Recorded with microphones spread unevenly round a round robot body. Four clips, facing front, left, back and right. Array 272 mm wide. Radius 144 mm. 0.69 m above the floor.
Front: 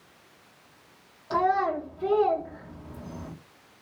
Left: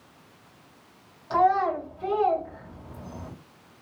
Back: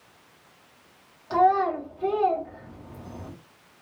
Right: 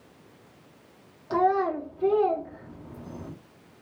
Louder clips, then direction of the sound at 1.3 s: Left 2 dB, back 4 dB; 80° right.